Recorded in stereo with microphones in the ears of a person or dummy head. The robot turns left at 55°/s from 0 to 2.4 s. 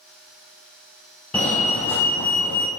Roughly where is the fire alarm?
Centre.